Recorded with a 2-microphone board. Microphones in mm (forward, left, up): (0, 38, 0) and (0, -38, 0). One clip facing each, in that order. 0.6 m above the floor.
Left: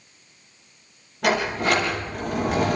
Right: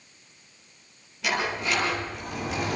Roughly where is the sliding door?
Left.